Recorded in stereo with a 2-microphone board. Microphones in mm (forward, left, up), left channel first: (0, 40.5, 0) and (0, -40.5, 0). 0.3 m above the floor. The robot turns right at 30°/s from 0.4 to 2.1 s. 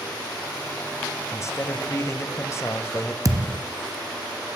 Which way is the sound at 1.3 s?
35° left (ahead or behind).